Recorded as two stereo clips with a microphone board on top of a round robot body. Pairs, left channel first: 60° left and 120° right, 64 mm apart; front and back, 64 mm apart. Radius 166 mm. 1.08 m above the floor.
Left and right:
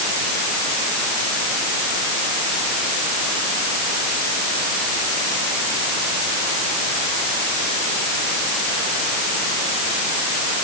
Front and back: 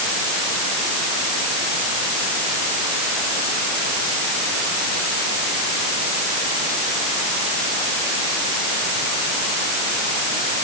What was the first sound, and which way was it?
Only background noise.